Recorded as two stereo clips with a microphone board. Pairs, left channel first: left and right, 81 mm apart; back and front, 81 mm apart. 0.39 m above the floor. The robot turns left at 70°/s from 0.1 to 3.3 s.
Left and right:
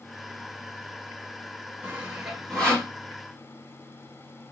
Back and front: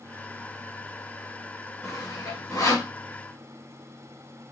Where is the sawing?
145° right, 1.5 m; by 2.9 s 140° left, 1.5 m.